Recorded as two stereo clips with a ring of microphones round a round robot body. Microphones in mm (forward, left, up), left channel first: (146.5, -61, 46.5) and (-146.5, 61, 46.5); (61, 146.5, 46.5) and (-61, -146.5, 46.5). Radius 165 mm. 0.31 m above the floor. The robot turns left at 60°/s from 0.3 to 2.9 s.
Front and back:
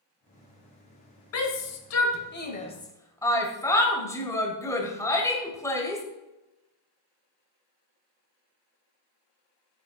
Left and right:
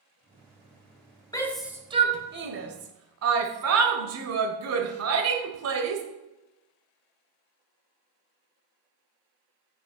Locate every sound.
1.3 s a shout: 5° right, 1.4 m; by 6.0 s 100° right, 1.4 m